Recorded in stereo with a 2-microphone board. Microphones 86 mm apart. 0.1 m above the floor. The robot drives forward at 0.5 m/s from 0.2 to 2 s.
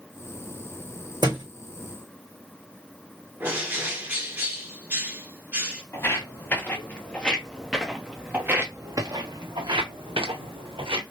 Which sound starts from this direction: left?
Footsteps, at 5.9 s.